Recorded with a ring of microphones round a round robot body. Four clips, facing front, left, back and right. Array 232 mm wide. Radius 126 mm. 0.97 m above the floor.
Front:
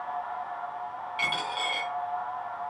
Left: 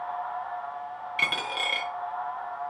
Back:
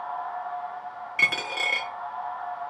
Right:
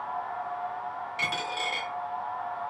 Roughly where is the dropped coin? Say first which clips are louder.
Left 2 dB, back 2 dB; behind left.